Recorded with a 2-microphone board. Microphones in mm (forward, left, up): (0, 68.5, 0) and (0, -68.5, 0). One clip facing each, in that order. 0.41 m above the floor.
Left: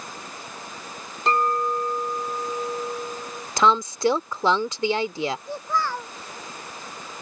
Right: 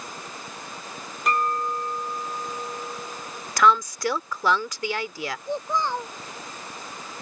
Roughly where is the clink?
Left.